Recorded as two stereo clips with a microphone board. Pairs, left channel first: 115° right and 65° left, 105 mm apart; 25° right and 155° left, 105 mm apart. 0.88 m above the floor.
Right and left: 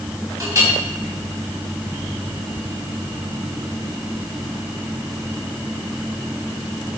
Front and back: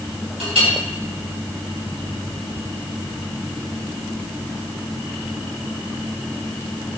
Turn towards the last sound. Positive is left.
turn(degrees=130)